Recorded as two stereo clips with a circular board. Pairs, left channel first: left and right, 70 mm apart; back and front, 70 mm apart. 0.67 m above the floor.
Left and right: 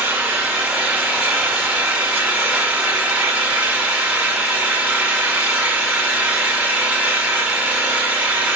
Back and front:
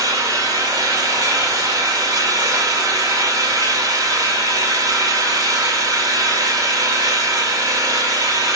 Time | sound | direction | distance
0.0 | an engine running | 15° right | 1.9 m